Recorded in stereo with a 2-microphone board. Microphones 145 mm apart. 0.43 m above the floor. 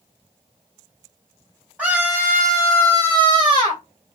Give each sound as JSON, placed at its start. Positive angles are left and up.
{"t": 1.8, "sound": "a scream", "side_deg": -10, "distance_m": 2.0}